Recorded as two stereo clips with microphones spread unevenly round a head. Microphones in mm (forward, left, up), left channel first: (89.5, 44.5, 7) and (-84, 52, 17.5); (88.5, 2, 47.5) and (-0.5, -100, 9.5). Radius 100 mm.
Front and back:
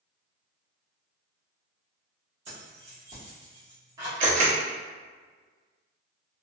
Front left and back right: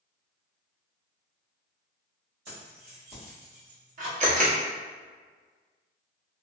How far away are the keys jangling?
About 1.4 m.